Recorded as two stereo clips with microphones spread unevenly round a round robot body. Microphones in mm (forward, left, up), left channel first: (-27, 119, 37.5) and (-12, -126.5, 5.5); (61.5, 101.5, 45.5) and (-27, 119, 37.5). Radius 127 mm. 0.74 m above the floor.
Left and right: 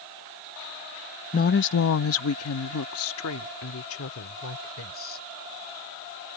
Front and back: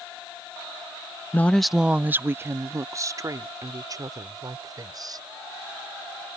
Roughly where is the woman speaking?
Ahead left.